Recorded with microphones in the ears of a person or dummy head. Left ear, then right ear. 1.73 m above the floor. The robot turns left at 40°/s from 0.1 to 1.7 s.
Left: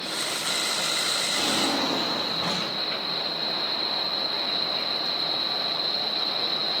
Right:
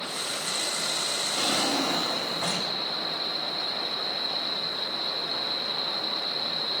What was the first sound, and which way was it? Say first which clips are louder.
A drawer: left 1 dB; 30° right (ahead or behind).